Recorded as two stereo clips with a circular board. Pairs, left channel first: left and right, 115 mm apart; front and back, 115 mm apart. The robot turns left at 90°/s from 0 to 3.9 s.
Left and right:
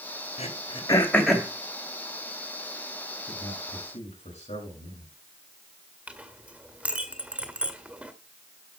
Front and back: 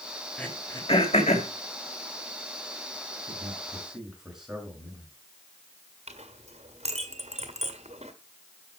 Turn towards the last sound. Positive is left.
turn(degrees=-170)